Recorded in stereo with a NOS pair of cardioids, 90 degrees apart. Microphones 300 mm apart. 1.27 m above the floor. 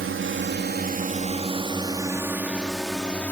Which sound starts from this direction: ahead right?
A drone, at 0.0 s.